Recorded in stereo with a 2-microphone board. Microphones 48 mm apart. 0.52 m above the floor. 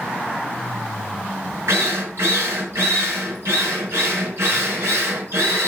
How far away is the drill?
About 4.5 m.